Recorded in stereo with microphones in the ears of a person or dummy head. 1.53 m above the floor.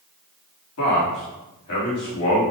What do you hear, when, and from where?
0.8 s a man speaking: 85° left, 3.5 m